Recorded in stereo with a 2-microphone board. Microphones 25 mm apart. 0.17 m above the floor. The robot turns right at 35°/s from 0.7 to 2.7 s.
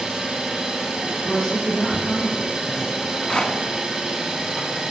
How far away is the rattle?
About 0.9 m.